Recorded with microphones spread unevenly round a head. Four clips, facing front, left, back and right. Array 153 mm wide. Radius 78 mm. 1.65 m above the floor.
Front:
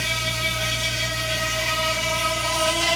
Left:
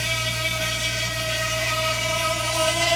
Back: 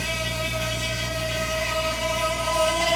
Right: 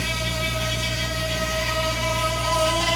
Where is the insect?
115° right, 0.9 m.